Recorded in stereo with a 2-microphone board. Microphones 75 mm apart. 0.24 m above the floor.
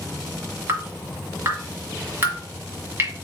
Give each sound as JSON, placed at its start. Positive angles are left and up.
{"t": 0.7, "sound": "dripping", "side_deg": -35, "distance_m": 1.4}